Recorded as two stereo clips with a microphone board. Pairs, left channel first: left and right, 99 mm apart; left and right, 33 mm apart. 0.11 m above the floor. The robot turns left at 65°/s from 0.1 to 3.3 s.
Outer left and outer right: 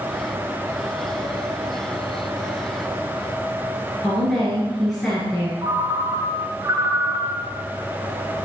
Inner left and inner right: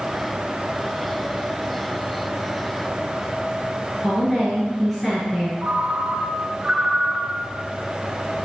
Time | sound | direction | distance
4.0 | a woman speaking | 5° left (ahead or behind) | 1.8 m
5.6 | a ringtone | 30° right (ahead or behind) | 0.6 m